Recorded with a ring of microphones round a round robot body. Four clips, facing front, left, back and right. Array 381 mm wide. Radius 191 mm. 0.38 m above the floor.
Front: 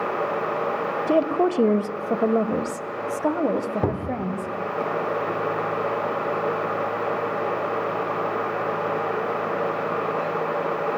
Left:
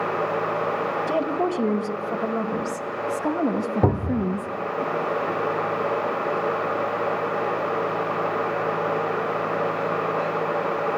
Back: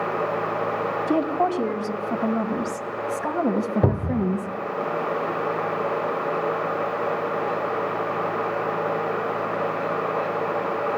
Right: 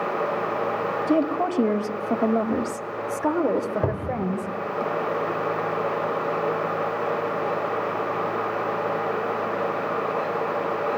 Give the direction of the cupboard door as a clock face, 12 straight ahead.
9 o'clock.